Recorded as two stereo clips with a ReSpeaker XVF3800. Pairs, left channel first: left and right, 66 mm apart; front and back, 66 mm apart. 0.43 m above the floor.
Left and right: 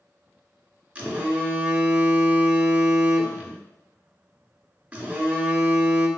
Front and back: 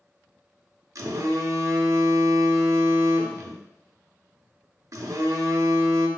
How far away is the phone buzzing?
About 0.5 m.